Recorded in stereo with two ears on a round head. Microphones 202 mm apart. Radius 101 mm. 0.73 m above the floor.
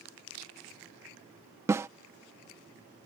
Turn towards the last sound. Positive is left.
turn(degrees=-10)  # may be behind; listen again after turning